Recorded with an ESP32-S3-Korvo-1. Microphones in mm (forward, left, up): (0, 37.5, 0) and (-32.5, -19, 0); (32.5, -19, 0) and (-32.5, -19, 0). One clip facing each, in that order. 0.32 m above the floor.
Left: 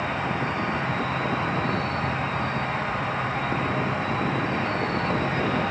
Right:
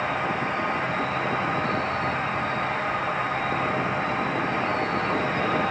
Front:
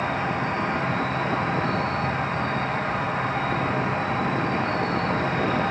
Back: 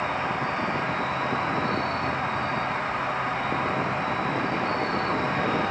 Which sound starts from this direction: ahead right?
An insect, at 0.0 s.